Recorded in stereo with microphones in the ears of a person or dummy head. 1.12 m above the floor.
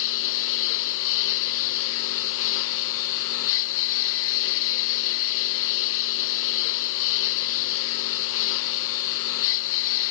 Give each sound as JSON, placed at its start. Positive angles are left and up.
{"t": 0.0, "sound": "a lawn mower", "side_deg": 75}